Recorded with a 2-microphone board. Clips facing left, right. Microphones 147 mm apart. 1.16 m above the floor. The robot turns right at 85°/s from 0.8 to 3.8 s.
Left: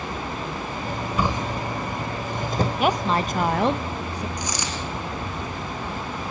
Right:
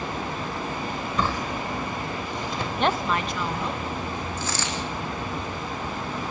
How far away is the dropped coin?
About 4.5 m.